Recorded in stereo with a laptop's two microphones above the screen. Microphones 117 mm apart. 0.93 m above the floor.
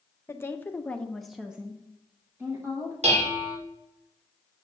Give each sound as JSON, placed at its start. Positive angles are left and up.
{"t": 0.3, "sound": "a woman speaking", "side_deg": 25, "distance_m": 0.9}
{"t": 3.0, "sound": "dishes clattering", "side_deg": -85, "distance_m": 1.8}